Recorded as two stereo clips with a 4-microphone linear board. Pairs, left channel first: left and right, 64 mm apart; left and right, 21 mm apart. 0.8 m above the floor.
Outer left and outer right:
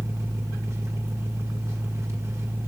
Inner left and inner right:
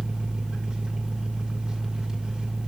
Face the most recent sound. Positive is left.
turn(degrees=-45)  # may be behind; listen again after turning